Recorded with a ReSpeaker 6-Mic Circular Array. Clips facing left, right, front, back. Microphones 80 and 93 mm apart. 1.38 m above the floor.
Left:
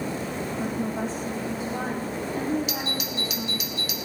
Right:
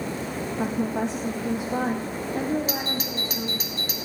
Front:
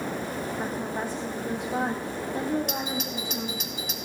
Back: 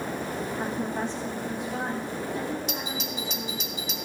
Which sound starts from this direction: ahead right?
A doorbell, at 2.7 s.